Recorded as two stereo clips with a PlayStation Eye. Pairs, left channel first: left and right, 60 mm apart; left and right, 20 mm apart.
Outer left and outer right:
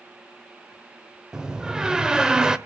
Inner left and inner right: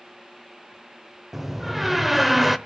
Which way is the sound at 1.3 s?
15° right (ahead or behind).